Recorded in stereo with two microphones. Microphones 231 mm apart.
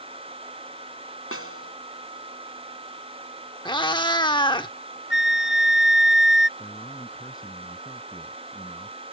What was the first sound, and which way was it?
A snare drum, 70° left (ahead or behind).